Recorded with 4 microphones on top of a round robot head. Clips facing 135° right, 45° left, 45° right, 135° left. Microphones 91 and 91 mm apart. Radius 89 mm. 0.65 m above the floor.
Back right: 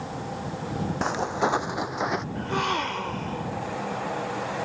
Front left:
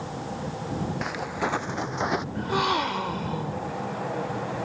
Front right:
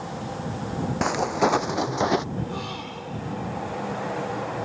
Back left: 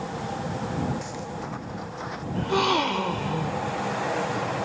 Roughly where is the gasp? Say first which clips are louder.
Front left 3 dB, back left 9 dB; behind left.